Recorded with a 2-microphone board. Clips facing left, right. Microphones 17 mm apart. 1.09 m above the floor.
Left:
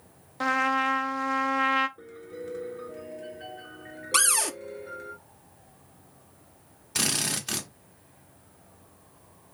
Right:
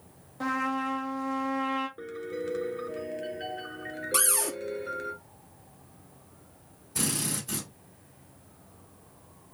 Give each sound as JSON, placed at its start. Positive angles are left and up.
{"t": 0.4, "sound": "a trumpet", "side_deg": 45, "distance_m": 0.6}
{"t": 2.0, "sound": "a piano", "side_deg": -35, "distance_m": 1.0}
{"t": 4.1, "sound": "a cupboard door", "side_deg": 35, "distance_m": 0.6}
{"t": 7.0, "sound": "a drill", "side_deg": 65, "distance_m": 1.5}